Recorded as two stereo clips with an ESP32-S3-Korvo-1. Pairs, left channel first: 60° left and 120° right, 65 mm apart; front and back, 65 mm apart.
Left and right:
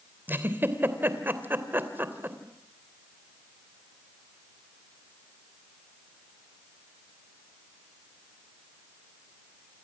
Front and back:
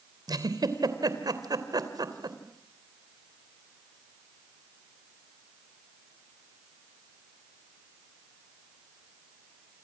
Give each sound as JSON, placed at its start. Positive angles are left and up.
{"t": 0.3, "sound": "a giggle", "azimuth_deg": 180, "distance_m": 3.0}